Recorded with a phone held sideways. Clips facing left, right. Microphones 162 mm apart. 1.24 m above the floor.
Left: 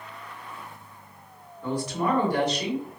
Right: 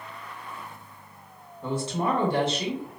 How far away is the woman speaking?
About 1.2 m.